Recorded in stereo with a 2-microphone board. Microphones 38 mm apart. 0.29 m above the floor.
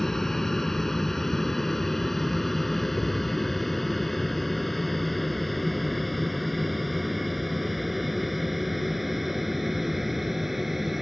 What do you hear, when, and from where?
0.0 s an aircraft: 10° left (ahead or behind); by 11.0 s 5° right (ahead or behind)